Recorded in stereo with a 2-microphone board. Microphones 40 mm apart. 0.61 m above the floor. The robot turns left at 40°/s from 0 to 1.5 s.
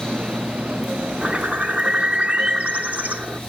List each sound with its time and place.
1.2 s a bird: 30° right (ahead or behind), 0.8 m; by 3.4 s 40° right (ahead or behind), 0.8 m